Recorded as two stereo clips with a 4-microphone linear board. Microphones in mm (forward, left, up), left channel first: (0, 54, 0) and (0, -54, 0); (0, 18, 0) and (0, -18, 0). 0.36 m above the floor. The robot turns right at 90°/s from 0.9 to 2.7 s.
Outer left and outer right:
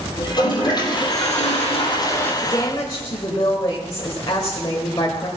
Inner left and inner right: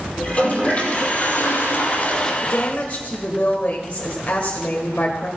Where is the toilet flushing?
40° left, 3 m; by 2.3 s 165° left, 3 m.